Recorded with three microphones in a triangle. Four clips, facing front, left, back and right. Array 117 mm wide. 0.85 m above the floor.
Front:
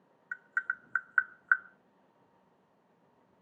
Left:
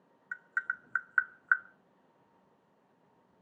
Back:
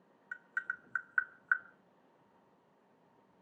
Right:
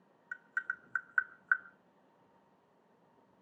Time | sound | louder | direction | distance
0.3 | tapping | left 3 dB, front 5 dB | 30° left | 0.9 m